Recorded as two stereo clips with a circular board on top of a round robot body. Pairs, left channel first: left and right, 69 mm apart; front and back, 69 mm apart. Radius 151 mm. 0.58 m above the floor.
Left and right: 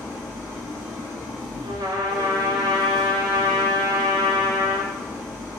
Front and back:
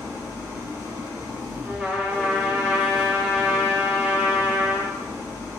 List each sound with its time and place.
0.0 s an engine running: 120° left, 1.9 m
1.6 s a trumpet: 105° right, 0.6 m